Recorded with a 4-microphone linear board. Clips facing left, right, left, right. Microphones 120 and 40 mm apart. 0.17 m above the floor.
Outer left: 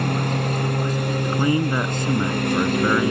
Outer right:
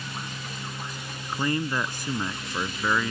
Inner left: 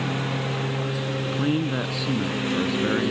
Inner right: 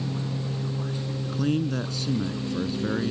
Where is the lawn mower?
60° left (ahead or behind).